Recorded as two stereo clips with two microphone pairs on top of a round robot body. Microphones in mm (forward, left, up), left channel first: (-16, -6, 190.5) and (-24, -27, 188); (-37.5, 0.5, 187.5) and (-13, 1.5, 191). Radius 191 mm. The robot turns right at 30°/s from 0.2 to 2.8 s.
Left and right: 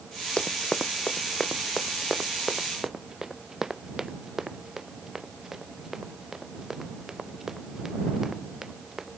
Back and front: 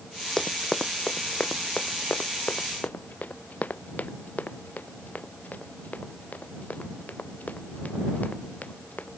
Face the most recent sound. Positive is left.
turn(degrees=175)